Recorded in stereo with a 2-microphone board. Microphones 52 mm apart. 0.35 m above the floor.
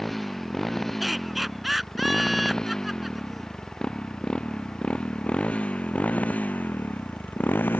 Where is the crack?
No crack in this recording.